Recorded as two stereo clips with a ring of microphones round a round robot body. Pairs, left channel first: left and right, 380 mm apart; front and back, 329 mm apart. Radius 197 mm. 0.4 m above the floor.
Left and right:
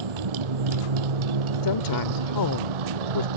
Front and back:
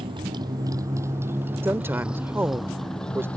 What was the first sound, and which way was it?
A motorcycle, 100° right.